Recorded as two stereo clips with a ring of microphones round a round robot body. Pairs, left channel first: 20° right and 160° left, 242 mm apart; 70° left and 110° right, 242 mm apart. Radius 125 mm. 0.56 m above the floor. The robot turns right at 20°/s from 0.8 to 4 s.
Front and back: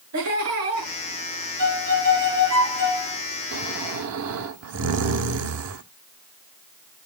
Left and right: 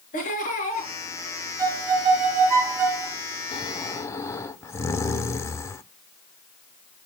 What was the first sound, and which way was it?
Laughter, 130° left.